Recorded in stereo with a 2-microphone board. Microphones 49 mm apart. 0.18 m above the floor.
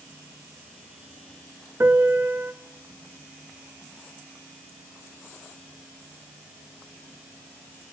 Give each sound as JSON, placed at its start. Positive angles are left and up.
{"t": 1.8, "sound": "a piano", "side_deg": -45, "distance_m": 0.5}